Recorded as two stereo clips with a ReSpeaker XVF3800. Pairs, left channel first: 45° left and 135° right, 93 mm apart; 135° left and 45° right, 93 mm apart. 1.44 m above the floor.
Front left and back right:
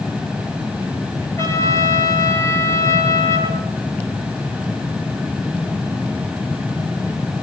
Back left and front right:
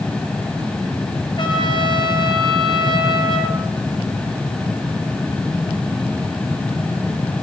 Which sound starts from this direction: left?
A trumpet, at 1.4 s.